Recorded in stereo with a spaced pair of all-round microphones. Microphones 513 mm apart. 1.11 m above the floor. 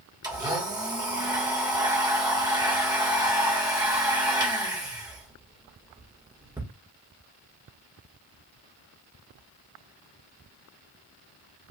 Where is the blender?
5° right (ahead or behind), 1.6 m.